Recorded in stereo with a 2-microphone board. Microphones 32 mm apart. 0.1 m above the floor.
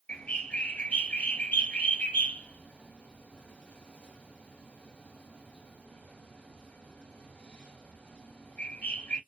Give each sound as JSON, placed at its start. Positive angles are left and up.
{"t": 0.1, "sound": "a bird", "side_deg": 40, "distance_m": 2.0}